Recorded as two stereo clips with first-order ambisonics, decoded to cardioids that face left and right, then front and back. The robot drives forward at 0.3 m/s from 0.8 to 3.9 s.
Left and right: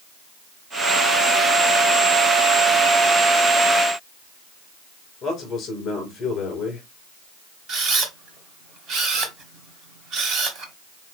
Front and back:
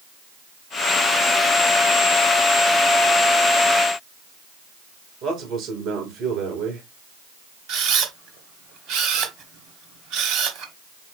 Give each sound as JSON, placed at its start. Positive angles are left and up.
{"t": 5.2, "sound": "a man speaking", "azimuth_deg": 145, "distance_m": 3.0}
{"t": 7.7, "sound": "a camera shutter", "azimuth_deg": -145, "distance_m": 1.0}